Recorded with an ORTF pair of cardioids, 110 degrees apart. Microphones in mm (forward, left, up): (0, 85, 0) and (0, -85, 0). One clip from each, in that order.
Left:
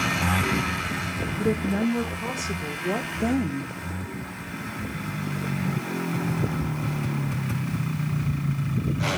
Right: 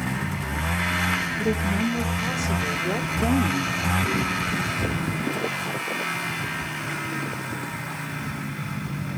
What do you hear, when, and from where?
1.4 s a woman speaking: 5° left, 1.8 m; by 3.7 s 10° right, 0.5 m